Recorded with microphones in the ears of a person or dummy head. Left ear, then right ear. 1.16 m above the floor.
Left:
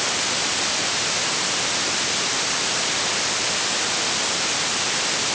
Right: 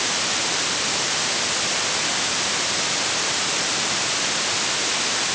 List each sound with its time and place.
Only background noise.